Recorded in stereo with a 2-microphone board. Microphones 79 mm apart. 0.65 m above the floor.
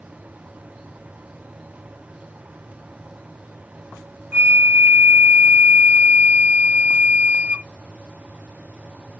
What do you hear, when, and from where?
4.3 s a flute: 20° right (ahead or behind), 0.9 m